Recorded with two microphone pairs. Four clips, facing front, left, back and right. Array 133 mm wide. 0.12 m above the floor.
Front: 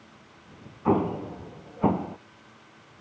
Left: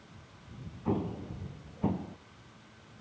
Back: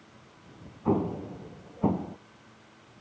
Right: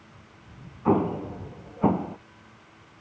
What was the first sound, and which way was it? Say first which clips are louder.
An explosion: right 10 dB, front 3 dB; 40° right.